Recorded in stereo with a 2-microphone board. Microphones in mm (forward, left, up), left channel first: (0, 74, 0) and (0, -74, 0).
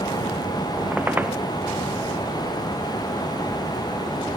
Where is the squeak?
10° right (ahead or behind).